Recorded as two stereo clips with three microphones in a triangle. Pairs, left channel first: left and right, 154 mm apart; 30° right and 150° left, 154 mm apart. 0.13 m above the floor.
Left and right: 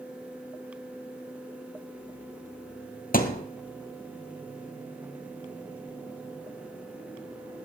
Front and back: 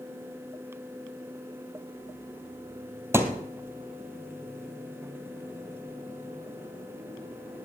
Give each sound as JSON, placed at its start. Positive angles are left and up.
{"t": 3.1, "sound": "a thud", "azimuth_deg": 75, "distance_m": 1.4}